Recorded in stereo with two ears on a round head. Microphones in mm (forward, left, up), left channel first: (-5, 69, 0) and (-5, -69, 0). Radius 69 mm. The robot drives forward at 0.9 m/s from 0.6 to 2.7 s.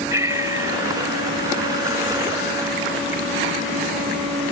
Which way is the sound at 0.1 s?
20° right (ahead or behind).